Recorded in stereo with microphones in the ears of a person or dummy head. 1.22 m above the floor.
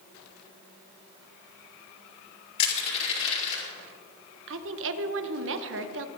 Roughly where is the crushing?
Left.